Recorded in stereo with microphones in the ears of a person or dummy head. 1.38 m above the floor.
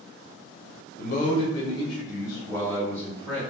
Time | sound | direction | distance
1.0 | a man speaking | 55° left (ahead or behind) | 0.6 m